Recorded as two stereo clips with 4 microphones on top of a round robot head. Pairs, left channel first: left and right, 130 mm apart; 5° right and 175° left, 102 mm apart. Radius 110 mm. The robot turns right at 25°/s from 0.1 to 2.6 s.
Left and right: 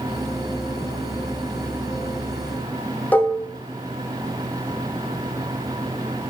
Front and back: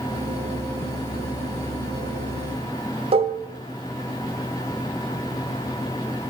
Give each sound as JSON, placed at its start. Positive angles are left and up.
{"t": 3.1, "sound": "dishes clattering", "azimuth_deg": 165, "distance_m": 1.2}